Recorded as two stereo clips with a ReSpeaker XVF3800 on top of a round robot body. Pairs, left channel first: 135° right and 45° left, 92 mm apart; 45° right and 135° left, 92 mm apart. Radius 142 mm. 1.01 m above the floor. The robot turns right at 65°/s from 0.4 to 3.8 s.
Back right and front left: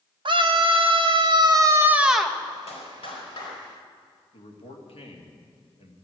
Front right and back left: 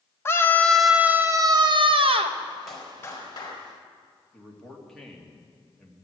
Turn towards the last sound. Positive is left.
turn(degrees=-130)